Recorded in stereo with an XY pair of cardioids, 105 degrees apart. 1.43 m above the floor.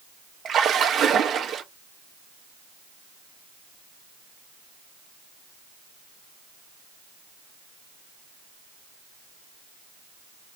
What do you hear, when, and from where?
0.5 s a splash: 55° right, 0.8 m